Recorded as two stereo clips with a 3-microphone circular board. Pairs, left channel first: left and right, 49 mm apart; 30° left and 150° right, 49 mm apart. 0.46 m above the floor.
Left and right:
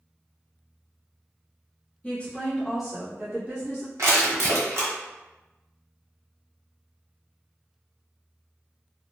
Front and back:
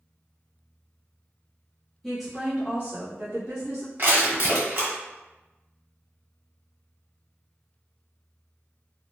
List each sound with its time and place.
2.0 s a woman speaking: 105° left, 0.8 m; by 3.9 s 150° right, 1.5 m
4.0 s crushing: 110° right, 1.4 m